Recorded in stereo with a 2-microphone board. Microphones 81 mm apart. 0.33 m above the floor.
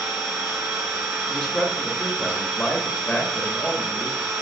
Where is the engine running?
20° right (ahead or behind), 1.9 m.